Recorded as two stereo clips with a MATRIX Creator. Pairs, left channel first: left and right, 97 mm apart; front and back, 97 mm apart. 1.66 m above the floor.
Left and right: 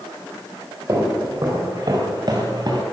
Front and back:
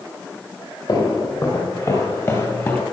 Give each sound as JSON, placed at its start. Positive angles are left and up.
{"t": 0.9, "sound": "footsteps", "azimuth_deg": -35, "distance_m": 3.5}